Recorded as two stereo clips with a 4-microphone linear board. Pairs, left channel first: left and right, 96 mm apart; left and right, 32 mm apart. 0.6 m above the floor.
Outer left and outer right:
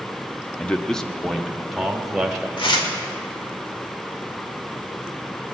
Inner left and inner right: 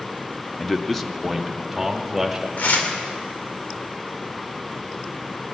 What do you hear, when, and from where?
0.6 s a man speaking: 15° left (ahead or behind), 0.7 m; by 2.5 s centre (ahead or behind), 2 m
2.6 s tearing paper: 60° left (ahead or behind), 1.8 m